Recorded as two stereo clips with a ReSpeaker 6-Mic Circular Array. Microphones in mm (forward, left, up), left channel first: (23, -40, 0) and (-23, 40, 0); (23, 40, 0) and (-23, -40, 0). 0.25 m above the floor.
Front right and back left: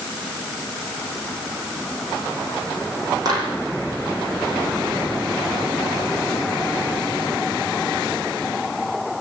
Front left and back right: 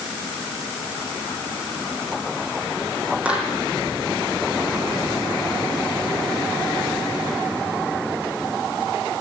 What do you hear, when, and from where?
3.2 s a clap: 165° left, 8.5 m